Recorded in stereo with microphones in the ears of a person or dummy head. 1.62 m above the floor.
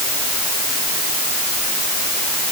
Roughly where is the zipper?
I don't hear a zipper.